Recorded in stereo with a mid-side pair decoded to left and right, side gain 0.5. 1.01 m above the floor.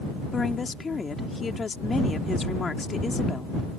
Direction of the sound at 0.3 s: 30° left.